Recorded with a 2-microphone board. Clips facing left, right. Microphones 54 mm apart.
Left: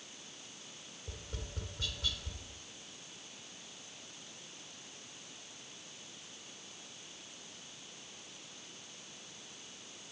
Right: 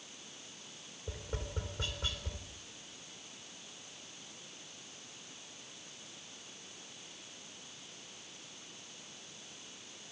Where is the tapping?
35° right (ahead or behind), 3.5 m.